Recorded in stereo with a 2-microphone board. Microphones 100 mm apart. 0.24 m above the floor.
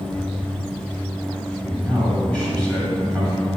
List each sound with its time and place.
1.6 s a man speaking: 10° left (ahead or behind), 1.7 m